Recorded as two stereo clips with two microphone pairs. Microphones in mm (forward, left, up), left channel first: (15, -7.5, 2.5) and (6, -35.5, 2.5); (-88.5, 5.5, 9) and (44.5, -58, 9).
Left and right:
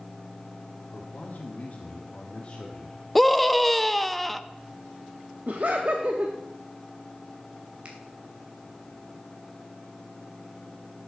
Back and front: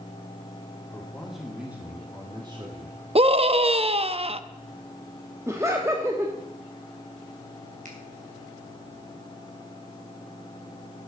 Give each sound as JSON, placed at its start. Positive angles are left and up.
{"t": 0.9, "sound": "a man speaking", "azimuth_deg": 70, "distance_m": 2.0}
{"t": 3.1, "sound": "a scream", "azimuth_deg": -15, "distance_m": 0.5}
{"t": 5.5, "sound": "laughter", "azimuth_deg": -95, "distance_m": 1.0}
{"t": 7.8, "sound": "a finger snap", "azimuth_deg": -55, "distance_m": 2.5}